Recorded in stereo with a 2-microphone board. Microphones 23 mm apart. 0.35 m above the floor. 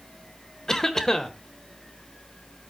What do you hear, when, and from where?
0.7 s a cough: 25° left (ahead or behind), 1.1 m